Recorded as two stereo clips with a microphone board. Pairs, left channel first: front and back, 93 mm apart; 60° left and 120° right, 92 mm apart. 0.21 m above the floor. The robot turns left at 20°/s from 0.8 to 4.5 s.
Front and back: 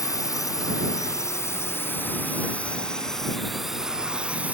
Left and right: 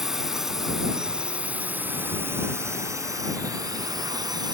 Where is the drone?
35° right; by 4.5 s 110° right.